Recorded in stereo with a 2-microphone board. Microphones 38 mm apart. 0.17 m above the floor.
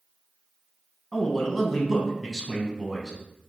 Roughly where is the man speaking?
Centre.